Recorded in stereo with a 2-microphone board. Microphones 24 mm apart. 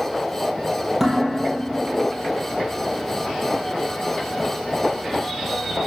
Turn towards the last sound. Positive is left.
turn(degrees=-10)  # may be behind; listen again after turning